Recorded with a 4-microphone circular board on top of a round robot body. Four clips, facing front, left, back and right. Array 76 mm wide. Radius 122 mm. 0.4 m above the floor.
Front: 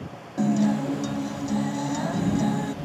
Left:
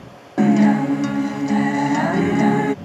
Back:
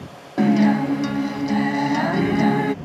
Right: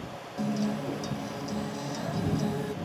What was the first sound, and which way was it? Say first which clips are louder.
A guitar: left 16 dB, back 6 dB; 115° left.